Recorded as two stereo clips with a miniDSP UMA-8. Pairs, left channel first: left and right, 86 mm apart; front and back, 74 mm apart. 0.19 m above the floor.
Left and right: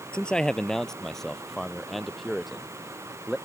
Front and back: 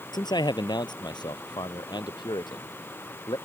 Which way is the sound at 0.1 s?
10° left.